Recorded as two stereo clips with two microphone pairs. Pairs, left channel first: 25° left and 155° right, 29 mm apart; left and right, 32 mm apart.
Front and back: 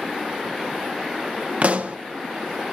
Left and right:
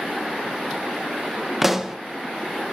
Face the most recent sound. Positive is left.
turn(degrees=-170)